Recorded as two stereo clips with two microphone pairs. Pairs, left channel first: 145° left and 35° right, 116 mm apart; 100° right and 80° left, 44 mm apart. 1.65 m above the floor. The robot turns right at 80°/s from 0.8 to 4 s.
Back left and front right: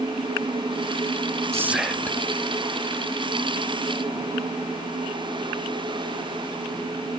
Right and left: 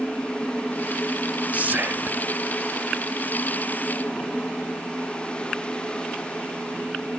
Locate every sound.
1.5 s whispering: 25° left, 0.7 m; by 2.2 s 85° left, 0.7 m